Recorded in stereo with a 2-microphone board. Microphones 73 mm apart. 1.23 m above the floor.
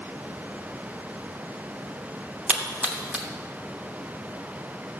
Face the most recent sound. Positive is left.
turn(degrees=-15)  # may be behind; listen again after turning